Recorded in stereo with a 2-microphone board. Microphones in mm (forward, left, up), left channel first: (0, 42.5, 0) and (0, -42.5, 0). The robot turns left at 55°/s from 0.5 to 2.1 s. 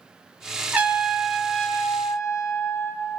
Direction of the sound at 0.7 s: 155° right.